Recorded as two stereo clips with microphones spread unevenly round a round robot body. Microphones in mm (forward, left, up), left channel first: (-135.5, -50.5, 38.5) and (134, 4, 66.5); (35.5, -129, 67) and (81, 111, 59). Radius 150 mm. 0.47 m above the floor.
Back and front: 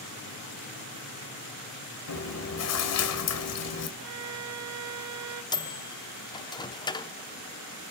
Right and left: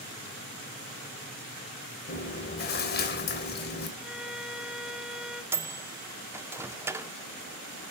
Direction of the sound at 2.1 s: 150° right.